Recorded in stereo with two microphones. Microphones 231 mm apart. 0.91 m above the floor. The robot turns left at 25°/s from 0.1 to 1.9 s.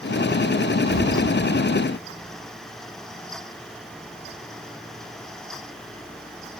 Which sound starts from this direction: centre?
A thud, at 0.9 s.